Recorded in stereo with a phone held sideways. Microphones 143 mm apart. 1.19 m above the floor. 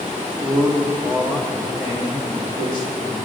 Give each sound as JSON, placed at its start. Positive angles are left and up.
{"t": 0.4, "sound": "a man speaking", "side_deg": 5, "distance_m": 2.5}